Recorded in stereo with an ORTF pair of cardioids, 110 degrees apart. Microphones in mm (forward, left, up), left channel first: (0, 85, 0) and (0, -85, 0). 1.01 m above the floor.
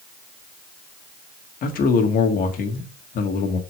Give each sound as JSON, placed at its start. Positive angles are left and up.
{"t": 1.6, "sound": "a man speaking", "azimuth_deg": 60, "distance_m": 2.0}